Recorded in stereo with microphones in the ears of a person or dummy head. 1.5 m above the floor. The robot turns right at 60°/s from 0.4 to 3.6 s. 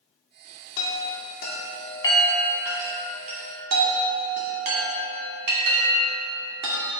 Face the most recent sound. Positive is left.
turn(degrees=-55)  # may be behind; listen again after turning